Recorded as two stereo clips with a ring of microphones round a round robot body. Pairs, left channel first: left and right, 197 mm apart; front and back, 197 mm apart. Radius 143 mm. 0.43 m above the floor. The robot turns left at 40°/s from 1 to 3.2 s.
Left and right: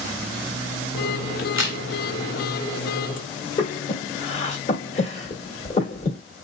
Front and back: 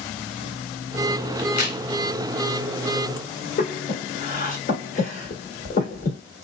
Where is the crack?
10° right, 1.9 m; by 1.8 s 25° right, 1.9 m.